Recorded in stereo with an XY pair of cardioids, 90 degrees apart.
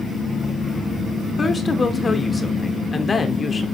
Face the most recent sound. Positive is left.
turn(degrees=35)